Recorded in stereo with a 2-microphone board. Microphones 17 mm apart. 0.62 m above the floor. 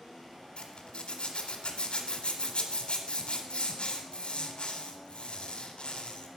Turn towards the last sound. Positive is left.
turn(degrees=65)  # may be behind; listen again after turning